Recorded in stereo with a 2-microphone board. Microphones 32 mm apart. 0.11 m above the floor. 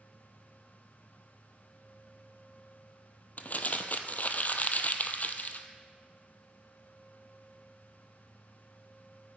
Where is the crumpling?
50° left (ahead or behind), 0.7 m.